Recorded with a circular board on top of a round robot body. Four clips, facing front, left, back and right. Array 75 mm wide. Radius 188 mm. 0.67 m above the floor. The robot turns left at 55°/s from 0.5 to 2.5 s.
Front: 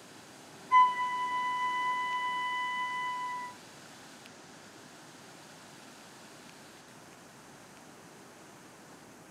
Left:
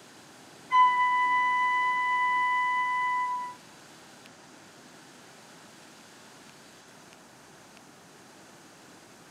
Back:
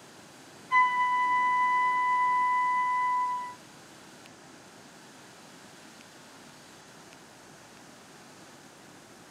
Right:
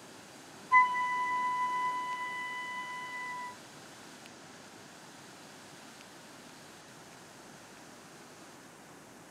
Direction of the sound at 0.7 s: 115° left.